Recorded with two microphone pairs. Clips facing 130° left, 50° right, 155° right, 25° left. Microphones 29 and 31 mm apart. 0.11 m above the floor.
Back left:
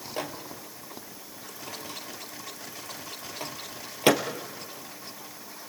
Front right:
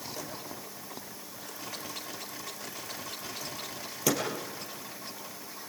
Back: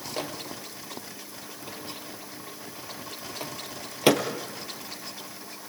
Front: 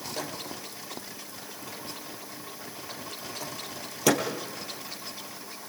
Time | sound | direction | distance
0.2 | a microwave | 160° left | 2.5 m